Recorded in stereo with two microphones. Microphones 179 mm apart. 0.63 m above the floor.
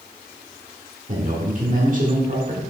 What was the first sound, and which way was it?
A man speaking, 50° right (ahead or behind).